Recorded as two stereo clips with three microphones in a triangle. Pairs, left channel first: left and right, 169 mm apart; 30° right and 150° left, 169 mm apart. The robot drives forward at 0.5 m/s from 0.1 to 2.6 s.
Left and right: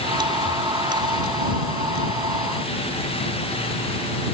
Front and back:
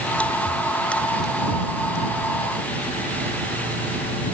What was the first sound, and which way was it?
Only background noise.